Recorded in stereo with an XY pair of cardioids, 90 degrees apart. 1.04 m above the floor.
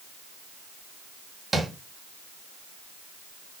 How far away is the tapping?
About 1.1 m.